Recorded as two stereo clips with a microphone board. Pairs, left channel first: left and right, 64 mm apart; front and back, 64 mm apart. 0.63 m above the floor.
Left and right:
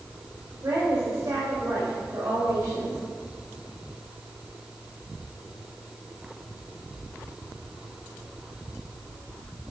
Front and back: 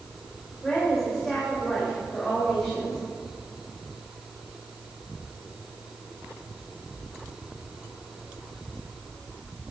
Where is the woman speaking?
80° right, 2.5 m.